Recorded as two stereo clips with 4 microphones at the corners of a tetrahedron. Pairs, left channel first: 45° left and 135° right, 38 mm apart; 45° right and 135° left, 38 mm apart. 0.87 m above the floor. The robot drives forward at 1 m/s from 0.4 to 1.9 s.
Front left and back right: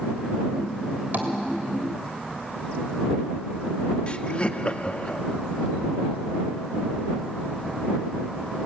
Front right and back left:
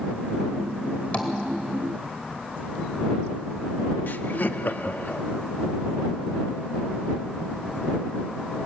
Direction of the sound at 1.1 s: 100° right.